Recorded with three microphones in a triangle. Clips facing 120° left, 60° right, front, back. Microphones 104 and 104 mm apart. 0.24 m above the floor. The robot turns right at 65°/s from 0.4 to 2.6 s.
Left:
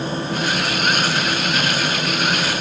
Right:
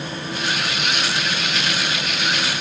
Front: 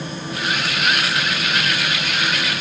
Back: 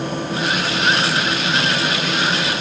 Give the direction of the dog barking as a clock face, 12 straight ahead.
I don't hear a dog barking.